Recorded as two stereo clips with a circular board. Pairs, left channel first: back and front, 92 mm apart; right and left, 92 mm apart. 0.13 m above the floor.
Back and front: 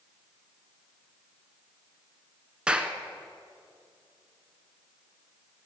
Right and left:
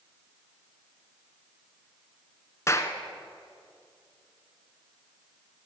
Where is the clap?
70° right, 1.1 m.